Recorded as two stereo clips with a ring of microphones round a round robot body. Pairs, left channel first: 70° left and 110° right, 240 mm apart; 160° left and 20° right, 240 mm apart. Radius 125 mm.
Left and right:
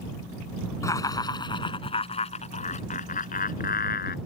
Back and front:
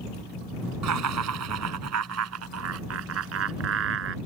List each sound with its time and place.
0.8 s laughter: 10° right; by 4.2 s 15° left